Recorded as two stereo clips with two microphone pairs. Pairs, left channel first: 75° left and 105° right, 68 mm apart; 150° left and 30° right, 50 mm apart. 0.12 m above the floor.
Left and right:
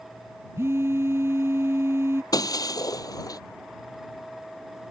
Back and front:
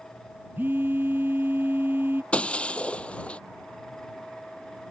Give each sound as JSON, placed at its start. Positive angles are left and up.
{"t": 0.6, "sound": "a phone buzzing", "azimuth_deg": -70}
{"t": 2.3, "sound": "breaking glass", "azimuth_deg": 85}